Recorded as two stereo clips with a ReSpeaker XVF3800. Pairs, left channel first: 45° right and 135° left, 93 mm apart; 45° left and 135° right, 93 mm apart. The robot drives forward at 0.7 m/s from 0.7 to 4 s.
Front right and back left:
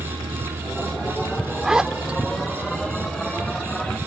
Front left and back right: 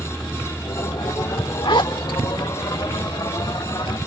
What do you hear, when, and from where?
0.0 s a vehicle: 120° left; by 4.1 s 160° left
1.6 s a zipper: 50° left; by 2.2 s 65° left